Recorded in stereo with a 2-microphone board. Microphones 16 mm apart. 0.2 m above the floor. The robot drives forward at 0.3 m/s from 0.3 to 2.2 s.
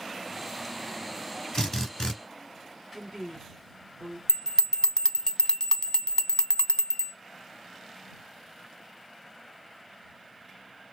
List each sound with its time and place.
1.5 s a drill: 45° left (ahead or behind), 2.5 m
2.9 s a woman speaking: 30° left (ahead or behind), 1.5 m
4.3 s a bell: 40° left (ahead or behind), 0.5 m